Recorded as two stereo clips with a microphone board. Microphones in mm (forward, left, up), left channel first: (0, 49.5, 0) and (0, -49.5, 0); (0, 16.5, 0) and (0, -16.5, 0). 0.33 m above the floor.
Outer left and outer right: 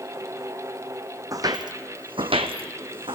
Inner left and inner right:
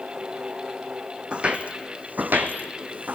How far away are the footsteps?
About 0.7 m.